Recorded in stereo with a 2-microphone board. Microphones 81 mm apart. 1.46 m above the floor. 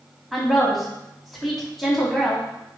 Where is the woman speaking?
Centre (ahead or behind), 3 m.